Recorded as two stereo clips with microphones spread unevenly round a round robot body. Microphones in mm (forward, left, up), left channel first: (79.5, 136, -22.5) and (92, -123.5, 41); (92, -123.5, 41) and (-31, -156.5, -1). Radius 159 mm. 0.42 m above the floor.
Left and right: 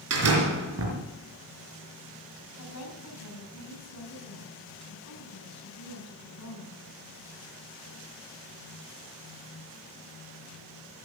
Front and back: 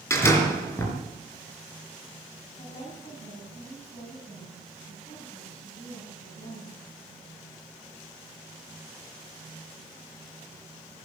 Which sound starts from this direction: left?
A woman speaking, at 2.6 s.